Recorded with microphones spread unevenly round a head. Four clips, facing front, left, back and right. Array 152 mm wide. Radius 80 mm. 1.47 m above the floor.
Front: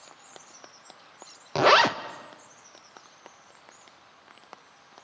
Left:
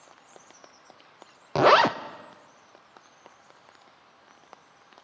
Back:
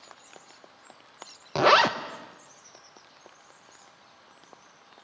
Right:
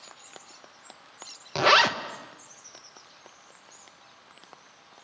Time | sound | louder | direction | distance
1.6 | a zipper | left 3 dB, even | 80° left | 0.7 m